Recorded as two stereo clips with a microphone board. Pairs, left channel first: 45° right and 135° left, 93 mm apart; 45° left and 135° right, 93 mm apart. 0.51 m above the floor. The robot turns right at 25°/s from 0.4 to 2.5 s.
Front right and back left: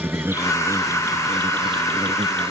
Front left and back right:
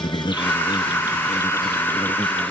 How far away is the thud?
I don't hear a thud.